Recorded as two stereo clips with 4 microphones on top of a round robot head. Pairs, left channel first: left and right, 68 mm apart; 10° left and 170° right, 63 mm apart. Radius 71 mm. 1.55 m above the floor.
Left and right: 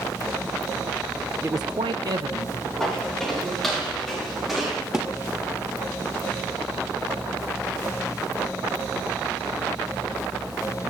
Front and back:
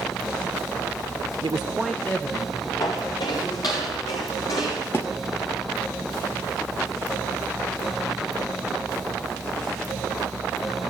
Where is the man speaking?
160° right, 0.6 m; by 3.8 s 40° right, 3 m.